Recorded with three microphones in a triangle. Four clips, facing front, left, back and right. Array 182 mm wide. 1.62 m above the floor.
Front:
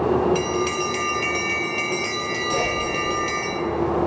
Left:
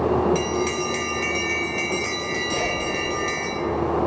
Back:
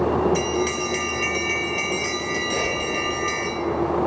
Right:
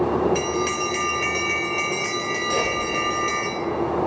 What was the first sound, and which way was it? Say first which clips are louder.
A bell: even, even; 75° right.